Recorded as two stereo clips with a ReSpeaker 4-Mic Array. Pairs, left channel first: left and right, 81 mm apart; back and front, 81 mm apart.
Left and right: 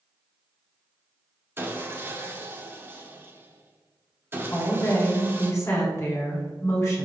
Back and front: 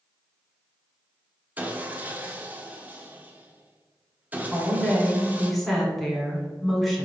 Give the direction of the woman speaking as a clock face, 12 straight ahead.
9 o'clock.